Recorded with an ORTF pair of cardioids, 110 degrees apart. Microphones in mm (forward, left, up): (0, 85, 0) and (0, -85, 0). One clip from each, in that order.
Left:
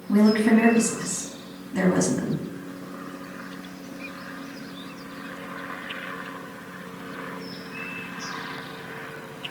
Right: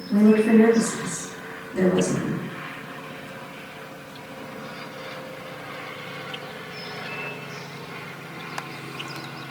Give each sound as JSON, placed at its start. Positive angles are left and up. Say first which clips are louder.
{"t": 0.1, "sound": "a woman speaking", "louder": "right 2 dB", "azimuth_deg": 70, "distance_m": 1.5}